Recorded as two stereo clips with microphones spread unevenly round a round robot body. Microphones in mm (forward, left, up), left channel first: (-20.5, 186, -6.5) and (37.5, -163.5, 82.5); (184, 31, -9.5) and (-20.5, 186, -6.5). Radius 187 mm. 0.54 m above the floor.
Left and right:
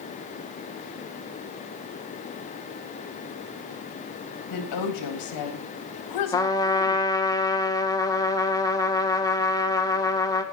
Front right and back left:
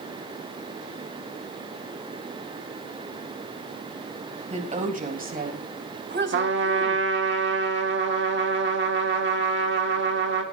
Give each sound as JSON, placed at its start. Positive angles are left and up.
{"t": 4.5, "sound": "a woman speaking", "azimuth_deg": 80, "distance_m": 3.5}
{"t": 6.3, "sound": "a trumpet", "azimuth_deg": 160, "distance_m": 1.6}